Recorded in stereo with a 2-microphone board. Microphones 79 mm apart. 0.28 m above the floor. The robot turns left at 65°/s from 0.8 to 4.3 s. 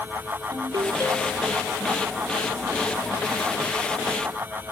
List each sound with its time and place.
0.5 s a ringtone: 130° right, 2.5 m; by 1.6 s straight behind, 2.5 m